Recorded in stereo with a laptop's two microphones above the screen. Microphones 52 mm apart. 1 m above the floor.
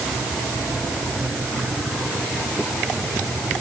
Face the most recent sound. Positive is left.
No sound to turn to.